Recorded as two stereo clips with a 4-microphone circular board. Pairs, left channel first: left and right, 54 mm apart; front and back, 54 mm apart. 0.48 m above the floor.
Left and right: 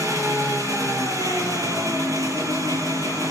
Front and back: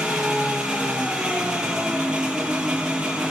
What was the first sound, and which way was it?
An engine running, 100° right.